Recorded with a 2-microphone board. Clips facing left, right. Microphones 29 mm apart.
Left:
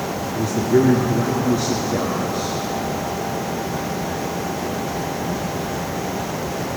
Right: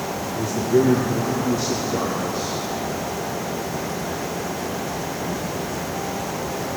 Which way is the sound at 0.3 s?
45° left (ahead or behind).